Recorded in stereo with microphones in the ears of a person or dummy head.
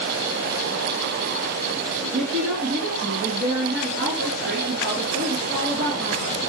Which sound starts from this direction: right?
A woman speaking, at 2.1 s.